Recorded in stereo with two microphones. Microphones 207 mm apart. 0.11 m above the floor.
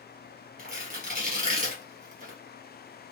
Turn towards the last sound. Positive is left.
turn(degrees=-45)  # may be behind; listen again after turning